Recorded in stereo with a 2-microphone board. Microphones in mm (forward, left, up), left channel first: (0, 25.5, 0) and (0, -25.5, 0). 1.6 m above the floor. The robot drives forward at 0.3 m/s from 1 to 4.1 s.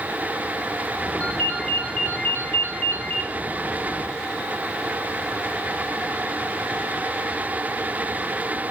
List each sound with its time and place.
1.2 s a ringtone: 30° left (ahead or behind), 3.5 m; by 3.3 s 40° left (ahead or behind), 3 m